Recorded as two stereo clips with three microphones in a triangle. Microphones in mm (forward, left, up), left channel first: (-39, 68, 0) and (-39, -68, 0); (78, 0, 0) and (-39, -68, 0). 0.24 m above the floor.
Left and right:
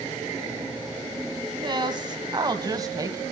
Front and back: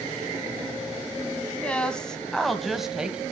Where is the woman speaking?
50° right, 2 m; by 3.2 s 80° right, 1.6 m.